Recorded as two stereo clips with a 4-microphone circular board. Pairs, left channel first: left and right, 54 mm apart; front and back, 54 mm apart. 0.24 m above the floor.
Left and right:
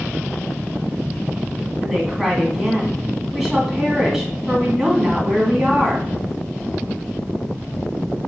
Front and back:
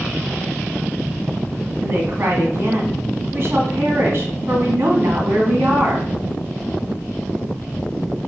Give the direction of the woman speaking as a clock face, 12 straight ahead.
6 o'clock.